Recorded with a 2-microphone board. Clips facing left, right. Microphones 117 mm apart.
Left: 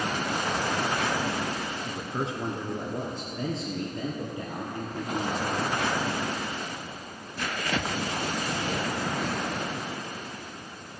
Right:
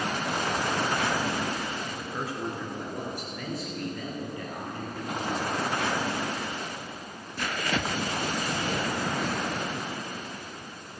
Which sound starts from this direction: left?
A man speaking, at 1.9 s.